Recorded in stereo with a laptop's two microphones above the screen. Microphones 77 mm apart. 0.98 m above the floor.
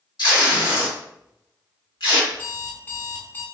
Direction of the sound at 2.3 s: 25° left (ahead or behind).